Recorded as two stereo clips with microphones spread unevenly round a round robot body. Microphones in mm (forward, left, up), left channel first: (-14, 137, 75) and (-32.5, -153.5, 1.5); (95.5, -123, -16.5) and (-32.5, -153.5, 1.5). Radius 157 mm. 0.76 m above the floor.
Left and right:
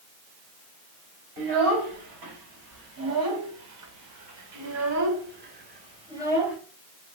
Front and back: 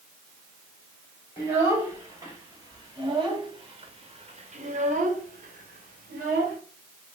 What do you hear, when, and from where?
1.4 s a child speaking: 100° right, 2.5 m; by 6.6 s straight behind, 1.1 m